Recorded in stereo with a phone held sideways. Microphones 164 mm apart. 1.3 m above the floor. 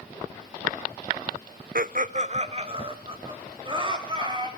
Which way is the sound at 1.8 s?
60° right (ahead or behind).